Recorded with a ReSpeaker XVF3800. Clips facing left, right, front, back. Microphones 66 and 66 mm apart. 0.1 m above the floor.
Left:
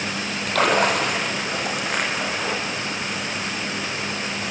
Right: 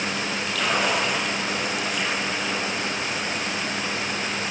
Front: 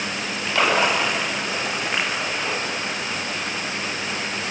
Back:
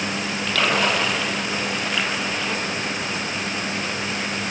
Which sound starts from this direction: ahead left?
A splash, at 0.5 s.